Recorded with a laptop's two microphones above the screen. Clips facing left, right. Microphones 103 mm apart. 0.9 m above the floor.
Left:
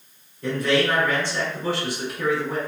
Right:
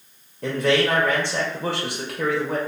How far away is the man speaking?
About 0.9 m.